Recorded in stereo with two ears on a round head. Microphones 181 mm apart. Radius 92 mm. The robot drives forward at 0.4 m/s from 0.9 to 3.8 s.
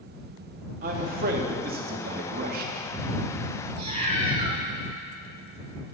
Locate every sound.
0.8 s a man speaking: 40° right (ahead or behind), 1.1 m; by 2.7 s 45° right (ahead or behind), 1.0 m
3.8 s a cat meowing: 30° right (ahead or behind), 1.5 m